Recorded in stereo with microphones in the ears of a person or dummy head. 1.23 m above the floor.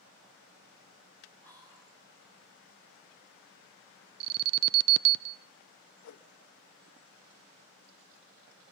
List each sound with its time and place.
1.4 s whispering: 15° right (ahead or behind), 4 m
4.2 s an alarm: 45° right (ahead or behind), 0.5 m
6.0 s a whoosh: 60° left (ahead or behind), 0.9 m